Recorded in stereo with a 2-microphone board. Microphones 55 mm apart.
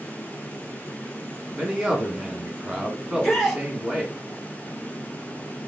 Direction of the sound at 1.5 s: 10° right (ahead or behind).